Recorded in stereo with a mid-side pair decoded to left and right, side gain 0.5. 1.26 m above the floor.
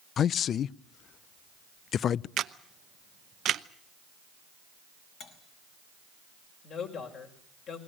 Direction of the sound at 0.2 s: 55° left.